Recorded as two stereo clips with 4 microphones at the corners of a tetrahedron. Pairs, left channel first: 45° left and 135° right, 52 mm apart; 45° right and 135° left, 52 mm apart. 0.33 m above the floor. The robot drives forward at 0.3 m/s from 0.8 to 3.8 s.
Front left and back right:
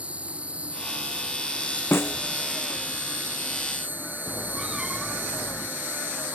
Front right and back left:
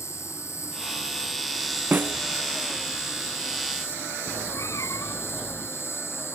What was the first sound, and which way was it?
An insect, 70° right.